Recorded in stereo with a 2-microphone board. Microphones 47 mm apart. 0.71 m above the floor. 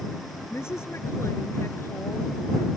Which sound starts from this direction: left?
A woman speaking, at 0.5 s.